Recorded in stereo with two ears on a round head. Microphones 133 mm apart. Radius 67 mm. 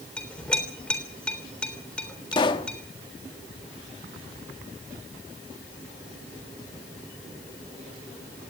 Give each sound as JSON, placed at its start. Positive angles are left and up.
{"t": 0.2, "sound": "a clink", "side_deg": 5, "distance_m": 3.5}
{"t": 2.3, "sound": "a pop", "side_deg": 30, "distance_m": 1.3}